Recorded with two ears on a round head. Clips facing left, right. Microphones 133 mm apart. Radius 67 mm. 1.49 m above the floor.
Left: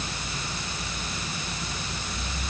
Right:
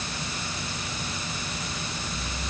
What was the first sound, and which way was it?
Only background noise.